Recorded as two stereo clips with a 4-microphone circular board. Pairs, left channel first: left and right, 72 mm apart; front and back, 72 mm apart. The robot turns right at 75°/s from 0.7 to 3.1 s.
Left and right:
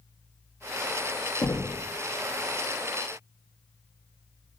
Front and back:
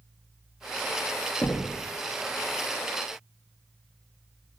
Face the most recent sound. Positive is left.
turn(degrees=-165)